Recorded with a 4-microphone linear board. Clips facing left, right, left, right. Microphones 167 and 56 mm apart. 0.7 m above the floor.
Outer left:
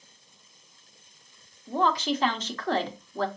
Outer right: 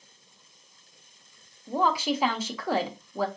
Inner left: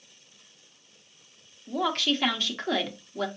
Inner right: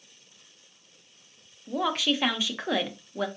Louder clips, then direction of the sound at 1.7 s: Even, even; 10° right (ahead or behind).